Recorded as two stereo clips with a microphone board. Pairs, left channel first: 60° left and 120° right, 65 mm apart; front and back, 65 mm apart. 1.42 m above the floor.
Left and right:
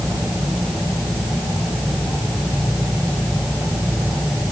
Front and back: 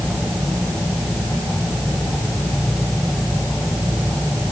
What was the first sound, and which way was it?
Only background noise.